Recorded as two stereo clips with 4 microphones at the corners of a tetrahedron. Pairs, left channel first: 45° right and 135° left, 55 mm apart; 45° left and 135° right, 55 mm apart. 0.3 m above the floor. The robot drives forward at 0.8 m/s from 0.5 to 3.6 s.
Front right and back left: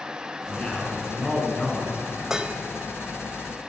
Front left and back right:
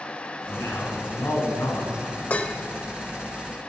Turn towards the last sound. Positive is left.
turn(degrees=160)